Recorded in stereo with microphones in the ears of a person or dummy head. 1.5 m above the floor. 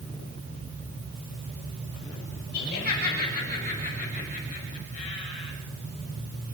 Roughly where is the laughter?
Left.